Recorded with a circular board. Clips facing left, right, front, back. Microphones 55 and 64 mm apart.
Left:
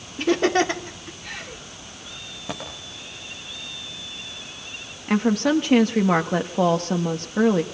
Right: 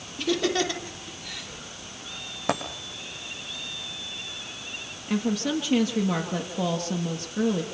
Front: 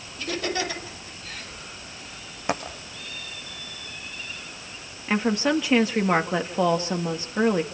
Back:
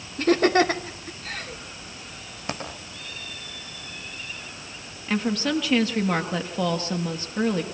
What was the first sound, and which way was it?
Laughter, 140° left.